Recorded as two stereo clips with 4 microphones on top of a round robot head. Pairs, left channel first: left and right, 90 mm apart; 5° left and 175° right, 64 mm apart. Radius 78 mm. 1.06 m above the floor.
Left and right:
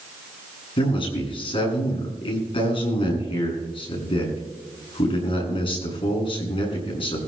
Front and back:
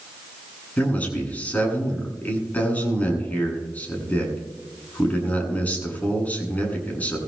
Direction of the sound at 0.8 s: 70° left.